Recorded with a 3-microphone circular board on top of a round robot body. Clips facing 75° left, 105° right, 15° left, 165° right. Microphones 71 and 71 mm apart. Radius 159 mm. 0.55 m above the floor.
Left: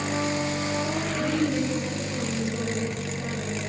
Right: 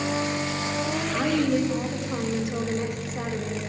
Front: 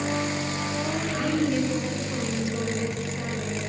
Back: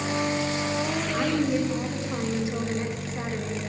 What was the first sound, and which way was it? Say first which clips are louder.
A woman speaking: right 3 dB, even; 105° right.